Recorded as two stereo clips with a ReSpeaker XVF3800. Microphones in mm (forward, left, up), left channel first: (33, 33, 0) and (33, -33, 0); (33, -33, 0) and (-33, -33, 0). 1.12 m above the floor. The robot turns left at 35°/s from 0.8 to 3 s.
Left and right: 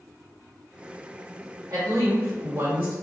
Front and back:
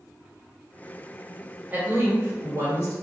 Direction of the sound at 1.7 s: 115° right.